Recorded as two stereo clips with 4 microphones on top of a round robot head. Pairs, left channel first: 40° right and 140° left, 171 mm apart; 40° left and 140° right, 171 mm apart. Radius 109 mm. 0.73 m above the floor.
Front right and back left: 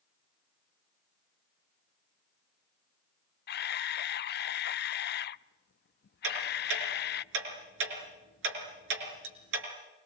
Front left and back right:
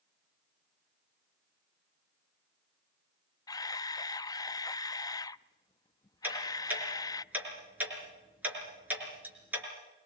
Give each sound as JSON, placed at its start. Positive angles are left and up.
{"t": 3.5, "sound": "a camera shutter", "azimuth_deg": -30, "distance_m": 0.5}
{"t": 6.2, "sound": "ticking", "azimuth_deg": 135, "distance_m": 5.5}